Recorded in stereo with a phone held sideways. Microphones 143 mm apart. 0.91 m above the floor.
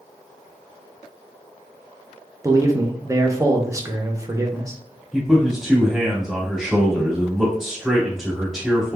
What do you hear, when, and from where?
2.4 s a man speaking: 20° right (ahead or behind), 0.6 m
5.1 s a man speaking: 5° right (ahead or behind), 1.6 m